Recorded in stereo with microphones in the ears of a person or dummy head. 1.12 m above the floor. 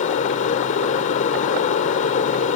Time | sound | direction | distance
0.0 | an aircraft | 40° left (ahead or behind) | ?